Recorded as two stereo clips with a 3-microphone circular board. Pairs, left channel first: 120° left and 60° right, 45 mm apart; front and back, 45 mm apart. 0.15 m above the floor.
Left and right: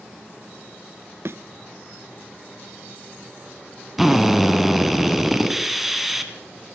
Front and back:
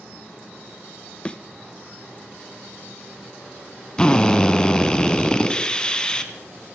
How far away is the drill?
About 1.6 m.